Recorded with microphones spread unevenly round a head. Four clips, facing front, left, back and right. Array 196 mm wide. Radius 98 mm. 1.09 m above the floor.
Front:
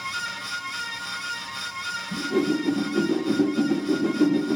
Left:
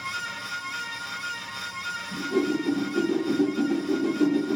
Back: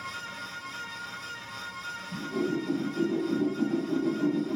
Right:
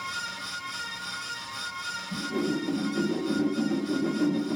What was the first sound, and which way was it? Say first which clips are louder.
A whoosh: left 4 dB, front 6 dB; 20° left.